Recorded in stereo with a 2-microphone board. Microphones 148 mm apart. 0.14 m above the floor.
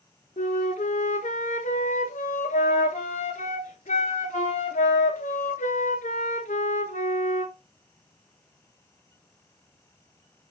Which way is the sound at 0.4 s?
55° left (ahead or behind).